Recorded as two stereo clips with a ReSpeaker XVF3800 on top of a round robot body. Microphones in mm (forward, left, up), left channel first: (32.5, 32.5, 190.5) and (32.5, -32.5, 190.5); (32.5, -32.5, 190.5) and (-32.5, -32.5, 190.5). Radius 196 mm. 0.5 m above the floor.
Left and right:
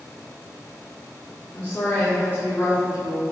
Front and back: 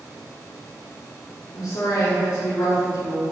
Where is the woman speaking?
20° left, 3 m; by 3.2 s 50° left, 3.5 m.